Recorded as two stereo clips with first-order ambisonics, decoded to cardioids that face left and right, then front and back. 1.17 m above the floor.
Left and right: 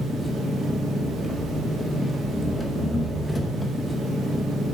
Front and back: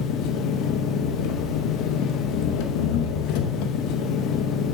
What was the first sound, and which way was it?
An engine running, 10° left.